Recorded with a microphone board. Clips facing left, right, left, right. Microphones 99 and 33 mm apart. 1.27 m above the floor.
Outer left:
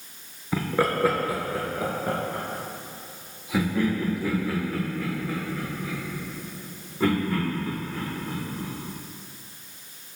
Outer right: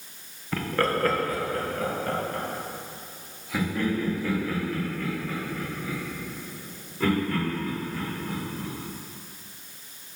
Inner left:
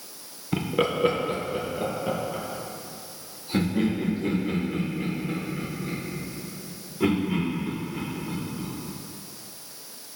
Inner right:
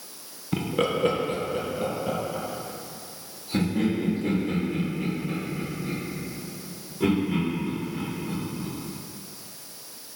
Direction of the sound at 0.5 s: 10° left (ahead or behind).